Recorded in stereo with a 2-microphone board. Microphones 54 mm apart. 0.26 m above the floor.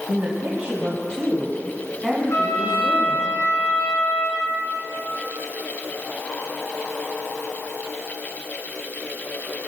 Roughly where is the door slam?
No door slam in this recording.